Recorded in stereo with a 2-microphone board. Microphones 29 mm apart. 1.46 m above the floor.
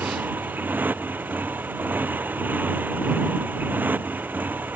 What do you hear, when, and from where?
0.0 s a motorcycle: 85° right; by 4.8 s 80° right